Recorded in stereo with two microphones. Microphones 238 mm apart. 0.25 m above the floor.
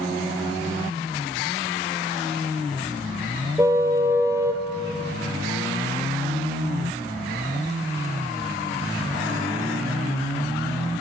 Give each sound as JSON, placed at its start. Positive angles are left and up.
{"t": 3.6, "sound": "a car horn", "side_deg": -10, "distance_m": 3.0}